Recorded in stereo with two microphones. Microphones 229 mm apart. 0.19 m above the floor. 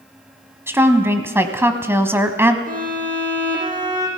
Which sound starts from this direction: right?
A violin, at 2.7 s.